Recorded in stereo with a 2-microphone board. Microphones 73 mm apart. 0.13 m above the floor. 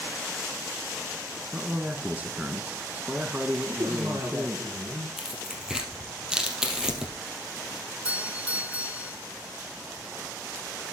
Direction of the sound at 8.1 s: 20° right (ahead or behind).